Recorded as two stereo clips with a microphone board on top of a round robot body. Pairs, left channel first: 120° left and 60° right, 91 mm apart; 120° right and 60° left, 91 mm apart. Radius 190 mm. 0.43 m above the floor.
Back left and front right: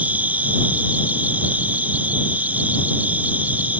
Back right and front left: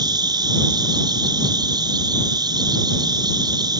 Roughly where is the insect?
Ahead.